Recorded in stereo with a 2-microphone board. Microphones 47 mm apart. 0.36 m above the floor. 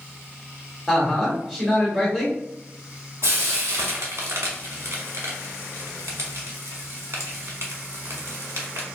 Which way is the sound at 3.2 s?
70° right (ahead or behind).